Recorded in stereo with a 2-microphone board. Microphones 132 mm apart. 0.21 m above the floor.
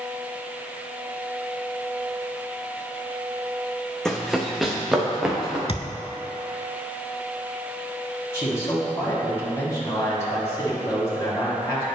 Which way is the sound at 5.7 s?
45° left (ahead or behind).